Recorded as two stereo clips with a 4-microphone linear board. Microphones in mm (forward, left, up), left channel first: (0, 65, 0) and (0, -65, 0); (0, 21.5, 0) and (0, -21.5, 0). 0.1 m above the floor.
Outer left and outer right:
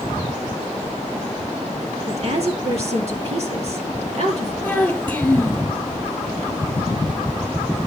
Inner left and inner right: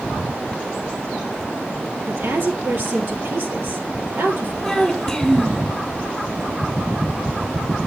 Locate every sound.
2.1 s a woman speaking: 55° right (ahead or behind), 2.5 m
4.6 s a child speaking: 10° left (ahead or behind), 2.5 m